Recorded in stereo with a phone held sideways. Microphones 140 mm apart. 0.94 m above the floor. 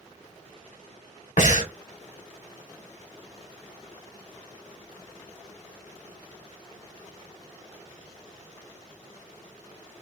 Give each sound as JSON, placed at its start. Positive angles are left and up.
{"t": 1.4, "sound": "breathing", "side_deg": 60, "distance_m": 1.4}